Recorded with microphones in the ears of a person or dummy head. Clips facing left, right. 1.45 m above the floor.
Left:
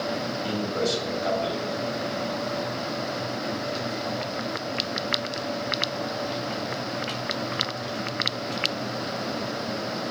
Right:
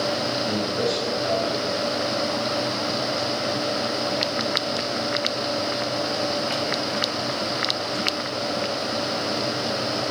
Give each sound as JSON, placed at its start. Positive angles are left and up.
{"t": 0.4, "sound": "a man speaking", "side_deg": 65, "distance_m": 7.5}